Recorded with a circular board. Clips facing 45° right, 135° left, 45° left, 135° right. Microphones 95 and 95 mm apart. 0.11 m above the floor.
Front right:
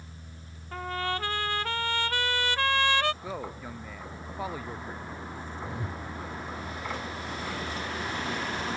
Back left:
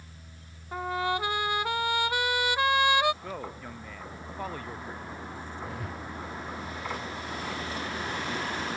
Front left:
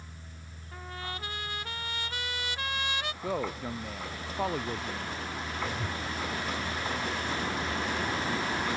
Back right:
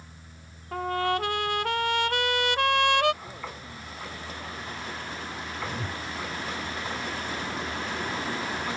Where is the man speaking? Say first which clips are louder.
Front right 1 dB, front left 8 dB; 40° left.